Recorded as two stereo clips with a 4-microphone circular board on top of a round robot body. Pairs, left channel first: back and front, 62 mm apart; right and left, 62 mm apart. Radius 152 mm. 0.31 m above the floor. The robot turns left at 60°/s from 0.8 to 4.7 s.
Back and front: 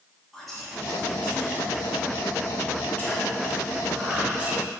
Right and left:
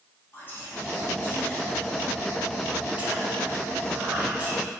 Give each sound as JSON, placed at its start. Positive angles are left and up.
{"t": 0.3, "sound": "whispering", "azimuth_deg": -95, "distance_m": 1.0}